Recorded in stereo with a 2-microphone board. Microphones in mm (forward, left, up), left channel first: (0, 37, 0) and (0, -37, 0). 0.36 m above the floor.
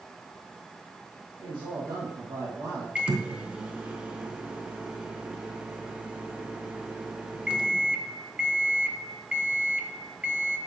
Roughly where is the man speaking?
Right.